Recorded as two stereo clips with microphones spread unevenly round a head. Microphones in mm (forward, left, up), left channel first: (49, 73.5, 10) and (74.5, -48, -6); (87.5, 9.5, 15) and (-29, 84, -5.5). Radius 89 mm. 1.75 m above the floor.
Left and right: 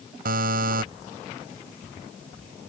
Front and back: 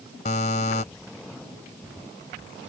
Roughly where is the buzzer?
Right.